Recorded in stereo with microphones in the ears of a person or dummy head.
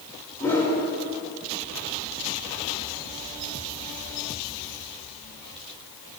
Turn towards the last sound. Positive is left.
turn(degrees=15)  # may be behind; listen again after turning